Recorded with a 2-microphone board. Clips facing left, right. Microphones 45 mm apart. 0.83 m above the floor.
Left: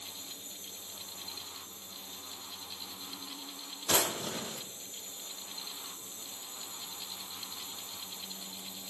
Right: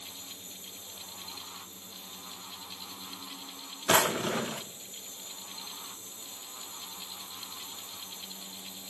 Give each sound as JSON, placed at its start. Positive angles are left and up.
{"t": 3.9, "sound": "a drawer", "side_deg": -45, "distance_m": 0.6}